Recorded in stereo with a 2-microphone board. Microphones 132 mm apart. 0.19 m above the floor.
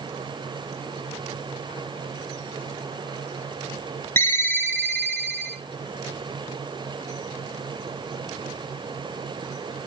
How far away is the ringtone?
About 1.0 m.